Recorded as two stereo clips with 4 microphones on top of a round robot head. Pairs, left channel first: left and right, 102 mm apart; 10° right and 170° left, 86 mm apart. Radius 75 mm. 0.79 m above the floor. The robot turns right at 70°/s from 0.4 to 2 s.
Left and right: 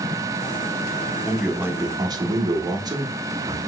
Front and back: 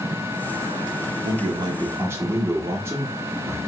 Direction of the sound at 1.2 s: 175° left.